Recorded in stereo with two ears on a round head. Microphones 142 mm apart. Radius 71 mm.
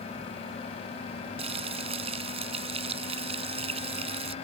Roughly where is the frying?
Right.